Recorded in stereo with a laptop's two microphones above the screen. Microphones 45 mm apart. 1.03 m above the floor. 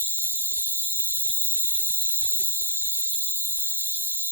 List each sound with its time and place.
0.0 s an insect: 60° left (ahead or behind), 1.4 m